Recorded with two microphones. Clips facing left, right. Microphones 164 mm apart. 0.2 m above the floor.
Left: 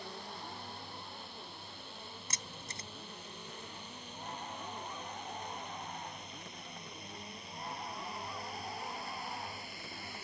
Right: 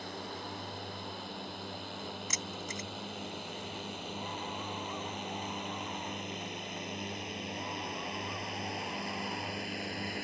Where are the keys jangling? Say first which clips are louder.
Right 8 dB; 30° left (ahead or behind).